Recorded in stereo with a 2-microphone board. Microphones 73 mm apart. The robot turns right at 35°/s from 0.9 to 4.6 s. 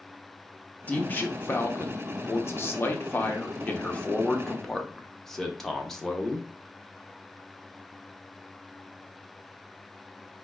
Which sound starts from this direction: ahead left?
A man speaking, at 0.9 s.